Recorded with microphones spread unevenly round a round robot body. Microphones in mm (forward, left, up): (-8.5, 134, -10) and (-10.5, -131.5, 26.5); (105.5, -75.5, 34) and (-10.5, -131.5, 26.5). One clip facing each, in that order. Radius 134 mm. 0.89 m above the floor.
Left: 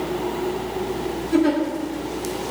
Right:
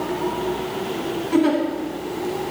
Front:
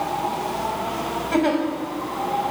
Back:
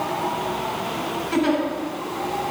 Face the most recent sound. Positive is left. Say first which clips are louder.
# even, front 1 dB
turn(degrees=-10)